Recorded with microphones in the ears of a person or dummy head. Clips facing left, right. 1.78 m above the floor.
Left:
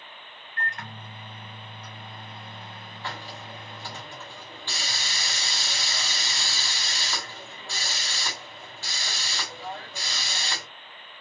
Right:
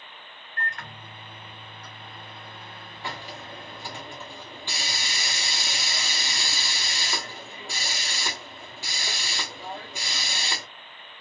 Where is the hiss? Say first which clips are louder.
Right 1 dB; 10° right (ahead or behind), 1.4 m.